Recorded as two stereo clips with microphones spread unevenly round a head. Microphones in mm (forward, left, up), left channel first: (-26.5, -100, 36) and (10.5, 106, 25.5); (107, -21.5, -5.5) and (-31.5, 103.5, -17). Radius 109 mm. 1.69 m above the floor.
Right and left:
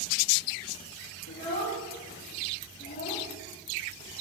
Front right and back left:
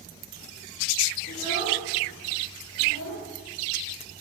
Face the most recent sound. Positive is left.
turn(degrees=-55)